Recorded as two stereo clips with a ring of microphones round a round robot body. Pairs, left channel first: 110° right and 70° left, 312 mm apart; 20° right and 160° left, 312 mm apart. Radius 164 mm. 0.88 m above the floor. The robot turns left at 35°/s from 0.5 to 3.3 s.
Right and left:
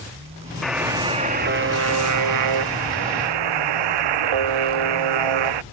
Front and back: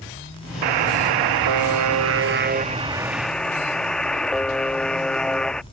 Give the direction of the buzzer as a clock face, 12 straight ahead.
7 o'clock.